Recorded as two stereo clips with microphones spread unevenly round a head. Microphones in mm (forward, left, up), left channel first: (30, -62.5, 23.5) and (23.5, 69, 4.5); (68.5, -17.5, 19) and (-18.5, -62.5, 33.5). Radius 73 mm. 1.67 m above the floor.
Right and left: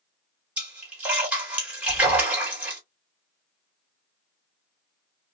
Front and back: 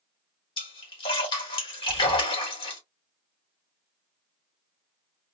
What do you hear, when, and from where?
0.6 s a splash: 5° left, 1.6 m
1.9 s breathing: 40° right, 1.5 m